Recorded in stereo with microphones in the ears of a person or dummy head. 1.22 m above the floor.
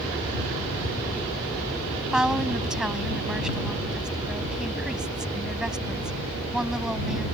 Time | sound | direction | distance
2.1 | a woman speaking | 5° right (ahead or behind) | ?